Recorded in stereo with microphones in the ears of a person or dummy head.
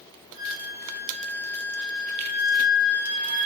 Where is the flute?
10° left (ahead or behind), 6 m.